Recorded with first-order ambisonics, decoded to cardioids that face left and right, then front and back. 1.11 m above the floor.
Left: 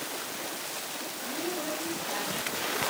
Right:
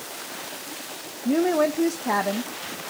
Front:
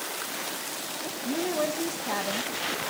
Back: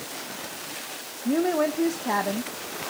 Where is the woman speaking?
115° right, 0.9 m.